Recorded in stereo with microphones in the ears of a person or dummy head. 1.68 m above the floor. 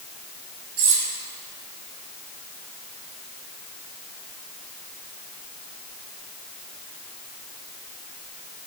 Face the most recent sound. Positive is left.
turn(degrees=-65)  # may be behind; listen again after turning